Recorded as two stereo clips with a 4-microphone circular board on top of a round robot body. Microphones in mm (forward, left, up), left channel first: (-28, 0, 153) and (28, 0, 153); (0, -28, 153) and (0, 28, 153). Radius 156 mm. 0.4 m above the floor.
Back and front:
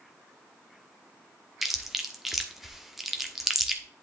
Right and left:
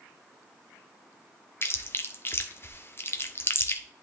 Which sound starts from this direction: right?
Chewing, at 1.6 s.